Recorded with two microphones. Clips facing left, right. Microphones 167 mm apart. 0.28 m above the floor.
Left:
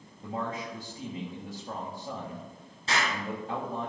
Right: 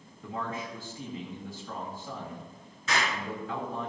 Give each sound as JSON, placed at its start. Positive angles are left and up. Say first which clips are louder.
{"t": 0.2, "sound": "a man speaking", "louder": "left 1 dB", "side_deg": 40, "distance_m": 1.7}
{"t": 2.9, "sound": "an explosion", "louder": "even", "side_deg": 30, "distance_m": 4.0}